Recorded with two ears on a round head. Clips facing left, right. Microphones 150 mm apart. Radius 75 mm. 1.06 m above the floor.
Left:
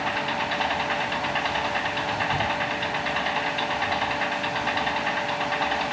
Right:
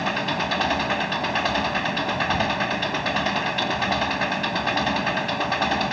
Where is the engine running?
55° right (ahead or behind).